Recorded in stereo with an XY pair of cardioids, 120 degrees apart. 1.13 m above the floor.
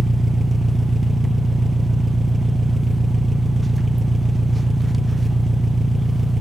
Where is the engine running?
5° right, 0.8 m.